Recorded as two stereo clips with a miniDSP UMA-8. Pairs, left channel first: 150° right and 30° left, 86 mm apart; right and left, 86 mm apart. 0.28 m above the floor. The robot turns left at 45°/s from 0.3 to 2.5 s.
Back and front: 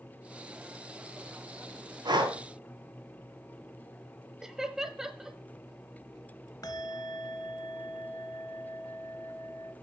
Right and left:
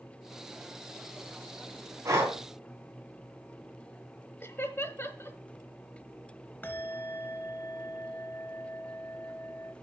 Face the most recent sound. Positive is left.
turn(degrees=-145)